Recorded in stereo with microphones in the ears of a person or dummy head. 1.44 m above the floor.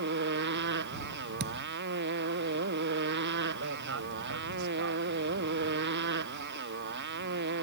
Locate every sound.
0.0 s a motorcycle: 65° right (ahead or behind)
1.4 s a thud: 65° right (ahead or behind)
3.5 s a man speaking: 80° right